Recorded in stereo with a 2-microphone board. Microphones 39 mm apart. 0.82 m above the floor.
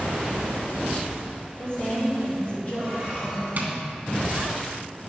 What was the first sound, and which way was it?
A woman speaking, 40° left (ahead or behind).